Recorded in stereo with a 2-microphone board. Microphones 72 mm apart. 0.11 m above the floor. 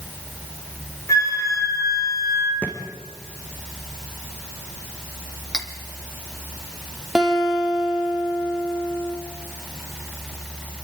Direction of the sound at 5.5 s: 10° left (ahead or behind).